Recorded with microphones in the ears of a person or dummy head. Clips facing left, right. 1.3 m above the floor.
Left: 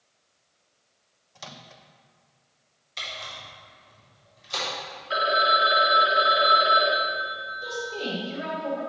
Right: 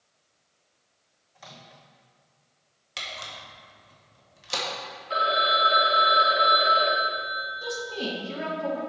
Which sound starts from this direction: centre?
A phone ringing, at 5.1 s.